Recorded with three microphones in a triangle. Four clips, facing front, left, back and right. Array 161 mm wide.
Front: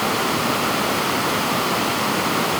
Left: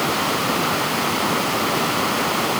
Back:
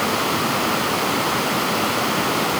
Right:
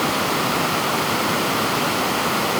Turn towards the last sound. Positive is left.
No sound to turn to.